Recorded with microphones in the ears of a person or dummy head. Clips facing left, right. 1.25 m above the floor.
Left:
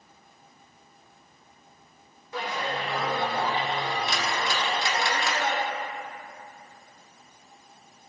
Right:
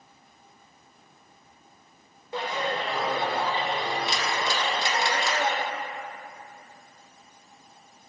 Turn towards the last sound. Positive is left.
turn(degrees=-25)  # may be behind; listen again after turning